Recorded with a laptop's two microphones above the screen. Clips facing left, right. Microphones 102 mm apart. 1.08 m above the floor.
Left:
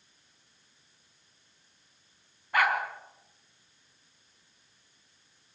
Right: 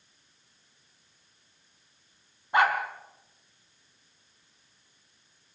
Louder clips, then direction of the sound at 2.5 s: Right 3 dB; 25° right (ahead or behind).